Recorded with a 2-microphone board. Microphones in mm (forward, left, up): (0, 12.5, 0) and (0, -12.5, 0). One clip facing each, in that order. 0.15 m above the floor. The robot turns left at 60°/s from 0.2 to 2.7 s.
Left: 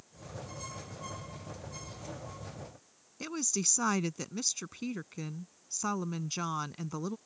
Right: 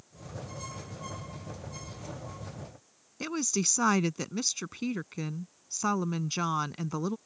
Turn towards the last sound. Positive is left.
turn(degrees=-20)  # may be behind; listen again after turning